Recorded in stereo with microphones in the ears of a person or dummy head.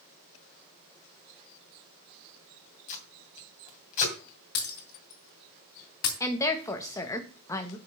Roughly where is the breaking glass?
Left.